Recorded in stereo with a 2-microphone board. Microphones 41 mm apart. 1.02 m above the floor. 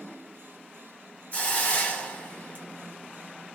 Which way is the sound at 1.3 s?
40° left (ahead or behind).